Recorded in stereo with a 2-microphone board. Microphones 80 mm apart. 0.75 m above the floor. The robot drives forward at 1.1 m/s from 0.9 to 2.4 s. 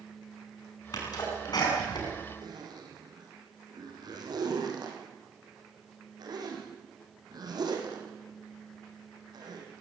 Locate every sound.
0.9 s a sneeze: 55° left (ahead or behind), 8 m; by 2.1 s 60° left (ahead or behind), 7.5 m
2.4 s a zipper: 60° right (ahead or behind), 5 m